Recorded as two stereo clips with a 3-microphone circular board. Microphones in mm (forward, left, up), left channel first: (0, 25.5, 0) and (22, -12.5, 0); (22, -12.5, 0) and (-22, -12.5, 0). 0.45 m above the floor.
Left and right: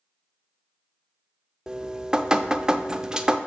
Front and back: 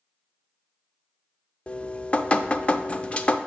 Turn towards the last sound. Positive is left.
turn(degrees=-10)